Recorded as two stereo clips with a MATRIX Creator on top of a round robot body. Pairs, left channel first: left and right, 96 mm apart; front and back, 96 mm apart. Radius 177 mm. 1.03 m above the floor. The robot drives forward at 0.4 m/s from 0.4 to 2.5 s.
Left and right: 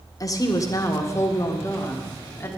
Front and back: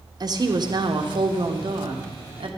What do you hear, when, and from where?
0.2 s a woman speaking: 140° left, 1.4 m; by 2.5 s 155° left, 2 m